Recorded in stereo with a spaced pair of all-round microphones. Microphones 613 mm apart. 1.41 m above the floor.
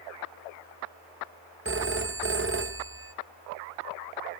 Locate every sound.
1.6 s a phone ringing: 20° right (ahead or behind), 0.7 m